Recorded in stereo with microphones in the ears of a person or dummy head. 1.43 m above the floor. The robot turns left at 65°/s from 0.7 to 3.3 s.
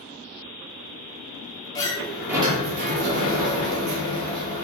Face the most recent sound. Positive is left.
turn(degrees=-75)